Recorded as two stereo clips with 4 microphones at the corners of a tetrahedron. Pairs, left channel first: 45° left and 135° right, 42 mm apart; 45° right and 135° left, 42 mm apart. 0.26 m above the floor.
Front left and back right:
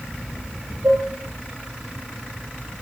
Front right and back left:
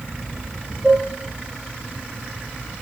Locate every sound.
0.8 s dishes clattering: 140° right, 8 m